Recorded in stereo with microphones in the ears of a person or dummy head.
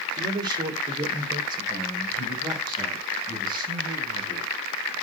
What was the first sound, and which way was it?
A man speaking, 25° right (ahead or behind).